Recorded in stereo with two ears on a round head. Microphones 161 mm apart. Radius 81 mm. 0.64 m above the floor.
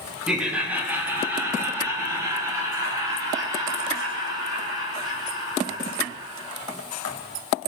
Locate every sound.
0.3 s laughter: 5° right (ahead or behind), 2.0 m; by 6.6 s 25° right (ahead or behind), 6.5 m